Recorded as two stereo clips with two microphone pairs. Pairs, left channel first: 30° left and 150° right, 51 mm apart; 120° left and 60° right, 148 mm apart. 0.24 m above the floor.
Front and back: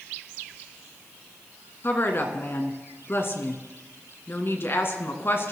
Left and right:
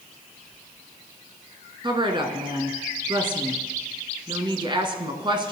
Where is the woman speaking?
5° right, 2 m.